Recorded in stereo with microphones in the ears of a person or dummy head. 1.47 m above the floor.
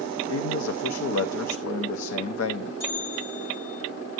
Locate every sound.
0.3 s a man speaking: 75° left (ahead or behind), 0.6 m
2.8 s a bell: 50° left (ahead or behind), 7 m